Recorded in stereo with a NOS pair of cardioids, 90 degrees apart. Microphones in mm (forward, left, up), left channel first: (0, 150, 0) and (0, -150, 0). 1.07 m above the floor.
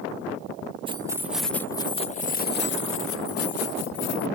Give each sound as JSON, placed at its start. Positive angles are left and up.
{"t": 0.9, "sound": "keys jangling", "azimuth_deg": -20}